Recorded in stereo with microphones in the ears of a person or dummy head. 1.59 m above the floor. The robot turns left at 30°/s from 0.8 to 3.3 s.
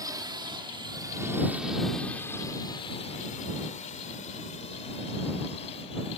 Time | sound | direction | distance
0.0 | a drone | 20° right (ahead or behind) | ?